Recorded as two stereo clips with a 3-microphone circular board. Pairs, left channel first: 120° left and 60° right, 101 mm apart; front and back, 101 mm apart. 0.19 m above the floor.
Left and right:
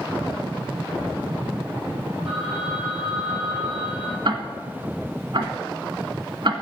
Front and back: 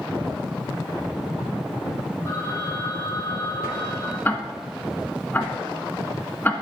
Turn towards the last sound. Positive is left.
turn(degrees=-70)